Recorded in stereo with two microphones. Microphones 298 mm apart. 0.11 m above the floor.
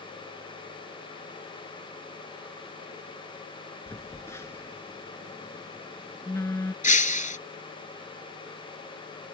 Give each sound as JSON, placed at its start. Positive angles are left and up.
{"t": 3.9, "sound": "a phone buzzing", "side_deg": 10}
{"t": 6.8, "sound": "breaking glass", "side_deg": 25}